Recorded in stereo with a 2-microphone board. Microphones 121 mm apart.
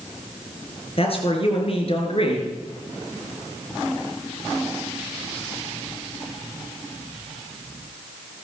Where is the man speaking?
55° left (ahead or behind), 4 m.